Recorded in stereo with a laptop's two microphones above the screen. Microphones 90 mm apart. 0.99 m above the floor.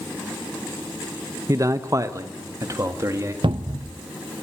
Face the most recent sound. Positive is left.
turn(degrees=-65)  # may be behind; listen again after turning